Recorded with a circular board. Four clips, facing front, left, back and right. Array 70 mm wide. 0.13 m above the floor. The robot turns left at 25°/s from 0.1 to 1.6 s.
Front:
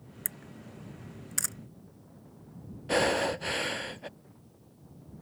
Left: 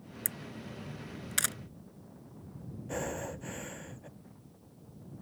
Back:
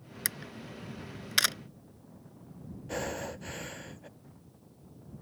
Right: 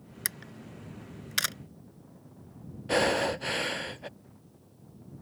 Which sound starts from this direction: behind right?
A camera shutter, at 0.2 s.